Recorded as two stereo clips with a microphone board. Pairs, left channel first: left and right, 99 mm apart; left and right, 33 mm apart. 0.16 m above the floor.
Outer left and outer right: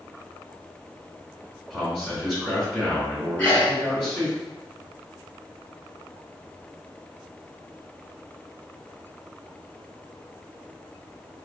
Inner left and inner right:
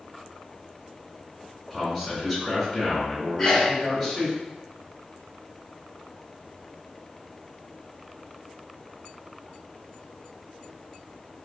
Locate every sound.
1.7 s a man speaking: 10° right (ahead or behind), 1.9 m
3.4 s a sneeze: 15° left (ahead or behind), 1.7 m